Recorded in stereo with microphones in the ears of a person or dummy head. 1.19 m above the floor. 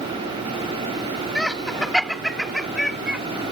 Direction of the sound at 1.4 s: Centre (ahead or behind).